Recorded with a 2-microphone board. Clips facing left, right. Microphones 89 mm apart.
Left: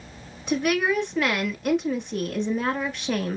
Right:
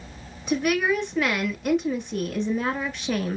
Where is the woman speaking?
Centre (ahead or behind), 1.1 m.